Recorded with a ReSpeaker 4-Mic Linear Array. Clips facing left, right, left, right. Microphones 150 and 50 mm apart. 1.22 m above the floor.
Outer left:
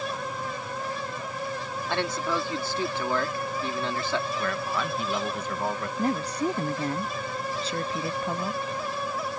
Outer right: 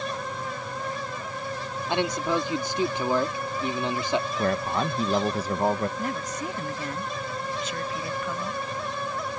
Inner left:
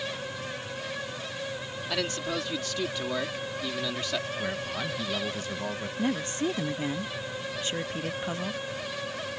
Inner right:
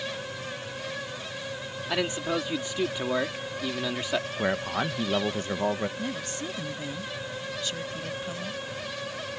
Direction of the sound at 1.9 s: 20° right (ahead or behind).